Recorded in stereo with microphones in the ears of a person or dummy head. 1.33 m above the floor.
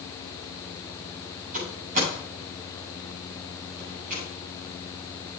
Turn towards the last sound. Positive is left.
turn(degrees=-50)  # may be behind; listen again after turning